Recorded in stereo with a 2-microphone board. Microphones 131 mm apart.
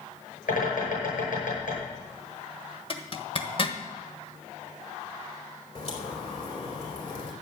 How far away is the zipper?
About 1.4 m.